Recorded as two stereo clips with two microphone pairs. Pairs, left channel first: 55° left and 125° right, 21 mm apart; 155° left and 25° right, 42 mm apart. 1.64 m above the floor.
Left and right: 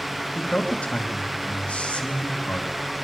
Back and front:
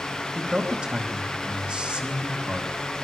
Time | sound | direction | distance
0.3 | a man speaking | 45° left | 2.5 m